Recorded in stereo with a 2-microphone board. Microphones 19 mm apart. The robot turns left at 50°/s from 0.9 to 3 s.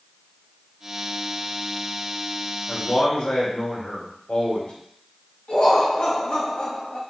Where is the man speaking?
70° left (ahead or behind), 2.5 m; by 4.7 s 65° left (ahead or behind), 2.5 m.